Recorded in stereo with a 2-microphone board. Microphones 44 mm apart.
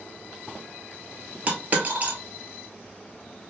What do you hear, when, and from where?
1.5 s a dropped coin: 35° right (ahead or behind), 1.1 m